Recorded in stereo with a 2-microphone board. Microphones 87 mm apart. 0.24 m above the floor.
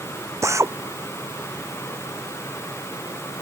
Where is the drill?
35° right (ahead or behind).